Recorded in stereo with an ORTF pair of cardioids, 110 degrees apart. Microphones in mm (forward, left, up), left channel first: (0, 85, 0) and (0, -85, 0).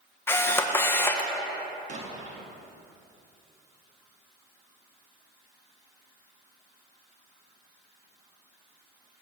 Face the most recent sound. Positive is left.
turn(degrees=-45)